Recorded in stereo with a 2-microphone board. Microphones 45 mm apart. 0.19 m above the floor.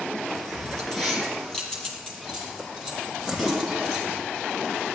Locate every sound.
0.3 s keys jangling: 10° left (ahead or behind), 3.5 m; by 4.2 s 15° left (ahead or behind), 7.5 m